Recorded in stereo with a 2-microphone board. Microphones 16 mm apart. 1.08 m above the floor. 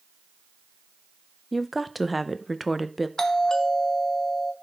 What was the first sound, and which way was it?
A woman speaking, centre (ahead or behind).